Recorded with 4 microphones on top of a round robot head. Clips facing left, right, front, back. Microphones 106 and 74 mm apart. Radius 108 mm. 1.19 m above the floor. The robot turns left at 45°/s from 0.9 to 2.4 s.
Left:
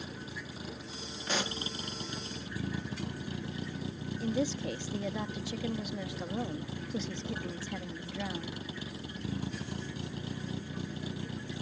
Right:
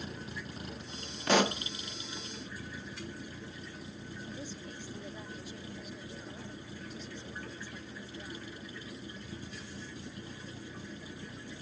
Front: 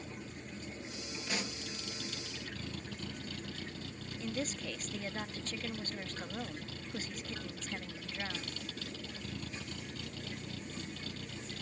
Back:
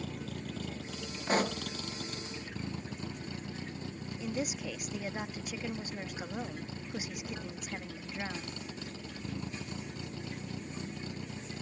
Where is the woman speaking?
100° left.